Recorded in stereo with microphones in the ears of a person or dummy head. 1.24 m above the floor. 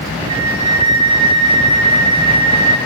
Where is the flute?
25° right (ahead or behind), 2.0 m.